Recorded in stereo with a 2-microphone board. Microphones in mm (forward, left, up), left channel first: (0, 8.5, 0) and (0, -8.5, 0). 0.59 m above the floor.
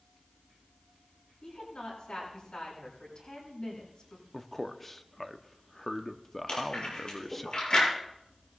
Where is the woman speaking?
70° left (ahead or behind), 8 m.